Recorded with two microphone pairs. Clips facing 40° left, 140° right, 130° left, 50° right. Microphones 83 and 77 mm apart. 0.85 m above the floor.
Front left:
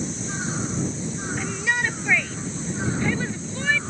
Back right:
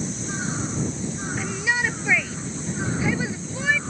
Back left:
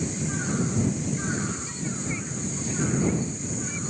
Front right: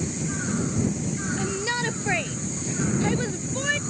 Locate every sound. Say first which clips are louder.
1.4 s a shout: even, front right 5 dB; 50° right; by 3.8 s 55° right